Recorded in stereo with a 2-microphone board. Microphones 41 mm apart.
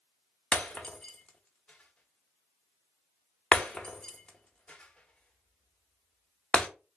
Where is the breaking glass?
25° left (ahead or behind), 0.9 m.